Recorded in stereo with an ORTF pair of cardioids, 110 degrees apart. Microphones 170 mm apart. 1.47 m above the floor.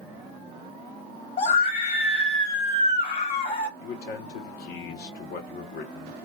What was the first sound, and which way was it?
A scream, 50° left.